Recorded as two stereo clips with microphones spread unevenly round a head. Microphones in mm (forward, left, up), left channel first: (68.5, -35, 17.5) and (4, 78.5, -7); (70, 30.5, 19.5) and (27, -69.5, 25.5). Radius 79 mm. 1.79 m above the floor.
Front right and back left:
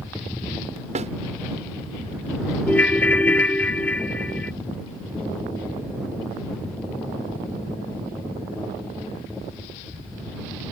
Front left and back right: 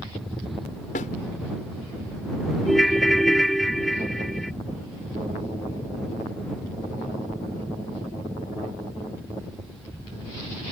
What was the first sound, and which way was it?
A snare drum, 85° left.